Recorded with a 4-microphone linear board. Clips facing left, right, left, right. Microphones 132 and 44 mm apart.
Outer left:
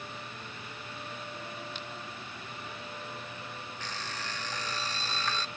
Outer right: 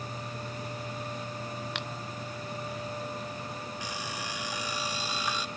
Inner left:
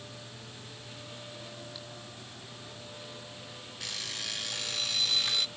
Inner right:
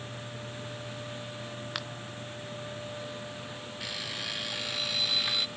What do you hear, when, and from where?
1.8 s a finger snap: 75° right (ahead or behind)
3.8 s an alarm clock: 10° right (ahead or behind)